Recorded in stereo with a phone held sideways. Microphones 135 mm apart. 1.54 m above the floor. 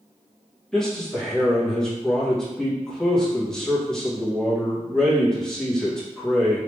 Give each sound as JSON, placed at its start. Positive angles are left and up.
{"t": 0.7, "sound": "a man speaking", "side_deg": 5, "distance_m": 1.3}